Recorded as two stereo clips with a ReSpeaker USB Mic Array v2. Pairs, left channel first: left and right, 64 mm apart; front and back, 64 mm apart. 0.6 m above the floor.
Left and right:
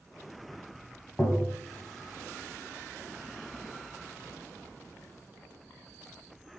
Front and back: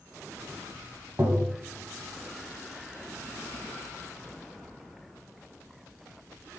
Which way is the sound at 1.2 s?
145° left.